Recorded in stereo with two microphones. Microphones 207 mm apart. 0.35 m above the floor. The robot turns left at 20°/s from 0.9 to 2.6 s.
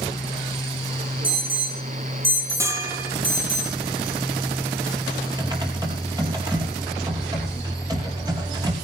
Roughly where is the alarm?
Right.